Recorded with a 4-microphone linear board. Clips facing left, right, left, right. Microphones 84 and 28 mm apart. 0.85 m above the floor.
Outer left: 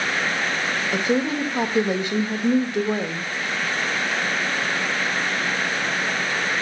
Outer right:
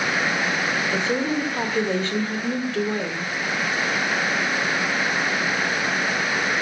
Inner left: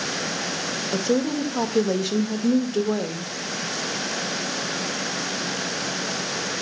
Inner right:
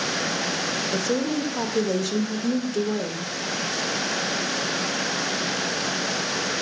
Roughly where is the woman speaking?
Centre.